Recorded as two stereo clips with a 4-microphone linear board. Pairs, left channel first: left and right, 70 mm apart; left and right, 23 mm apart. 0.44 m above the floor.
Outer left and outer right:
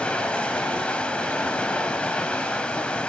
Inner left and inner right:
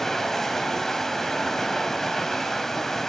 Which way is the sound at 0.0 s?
15° left (ahead or behind).